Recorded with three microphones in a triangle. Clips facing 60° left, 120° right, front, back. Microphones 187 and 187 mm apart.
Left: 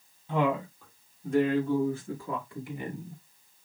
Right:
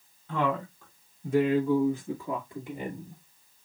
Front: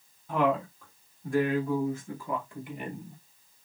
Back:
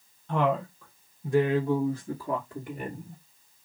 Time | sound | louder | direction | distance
0.3 | a woman speaking | left 2 dB, even | 70° left | 1.3 m